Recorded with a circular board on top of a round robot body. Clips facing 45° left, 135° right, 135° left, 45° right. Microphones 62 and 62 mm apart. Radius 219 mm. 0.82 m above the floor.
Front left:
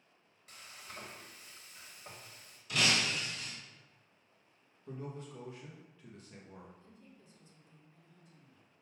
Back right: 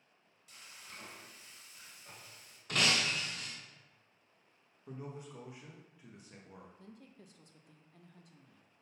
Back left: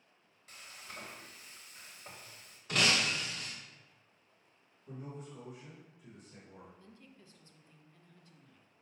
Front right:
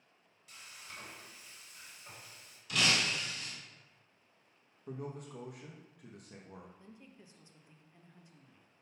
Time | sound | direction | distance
0.5 | frying | 85° left | 1.2 m
2.7 | breaking glass | 175° right | 1.3 m
4.9 | a man speaking | 65° right | 1.0 m
6.8 | a woman speaking | 115° right | 0.8 m